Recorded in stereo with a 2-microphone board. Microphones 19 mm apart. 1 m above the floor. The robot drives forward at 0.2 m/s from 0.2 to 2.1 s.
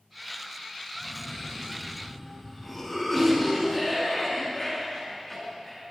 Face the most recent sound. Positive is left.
turn(degrees=25)  # may be behind; listen again after turning